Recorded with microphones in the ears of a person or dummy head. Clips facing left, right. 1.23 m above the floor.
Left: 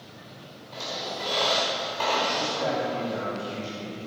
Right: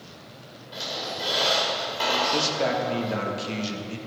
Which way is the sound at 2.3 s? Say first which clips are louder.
Right 2 dB; 75° right (ahead or behind).